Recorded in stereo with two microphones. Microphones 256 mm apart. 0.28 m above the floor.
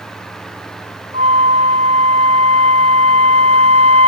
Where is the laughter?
No laughter in this recording.